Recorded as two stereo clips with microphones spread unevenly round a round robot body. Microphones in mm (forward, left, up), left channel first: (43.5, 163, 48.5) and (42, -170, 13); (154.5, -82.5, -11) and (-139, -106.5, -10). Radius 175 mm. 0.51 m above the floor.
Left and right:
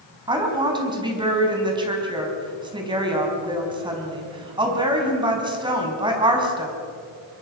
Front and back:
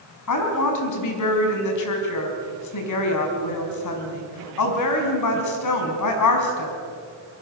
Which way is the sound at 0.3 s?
15° right.